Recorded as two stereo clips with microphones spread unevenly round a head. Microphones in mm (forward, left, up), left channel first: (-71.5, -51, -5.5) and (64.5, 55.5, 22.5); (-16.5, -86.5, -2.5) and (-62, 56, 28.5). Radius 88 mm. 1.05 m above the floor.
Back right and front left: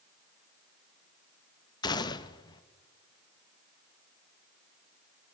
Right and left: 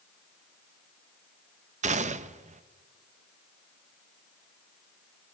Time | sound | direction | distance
1.8 | a gunshot | 155° left | 1.1 m